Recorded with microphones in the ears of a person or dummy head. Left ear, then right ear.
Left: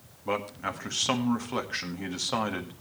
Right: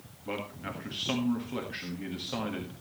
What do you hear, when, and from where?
0.2 s a man speaking: 35° left (ahead or behind), 1.6 m